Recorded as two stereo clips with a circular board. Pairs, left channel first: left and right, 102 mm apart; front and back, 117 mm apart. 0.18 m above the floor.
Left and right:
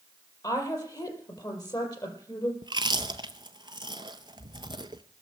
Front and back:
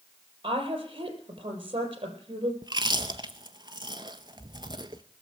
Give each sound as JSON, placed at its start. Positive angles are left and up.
{"t": 0.4, "sound": "a woman speaking", "azimuth_deg": 135, "distance_m": 4.0}
{"t": 2.6, "sound": "chewing", "azimuth_deg": -130, "distance_m": 0.9}